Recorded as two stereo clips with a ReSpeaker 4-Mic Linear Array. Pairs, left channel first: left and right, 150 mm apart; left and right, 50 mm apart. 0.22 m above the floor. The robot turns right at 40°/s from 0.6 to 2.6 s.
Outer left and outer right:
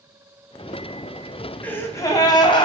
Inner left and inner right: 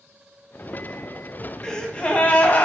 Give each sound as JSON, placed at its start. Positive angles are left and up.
{"t": 1.6, "sound": "a gasp", "azimuth_deg": 15, "distance_m": 1.2}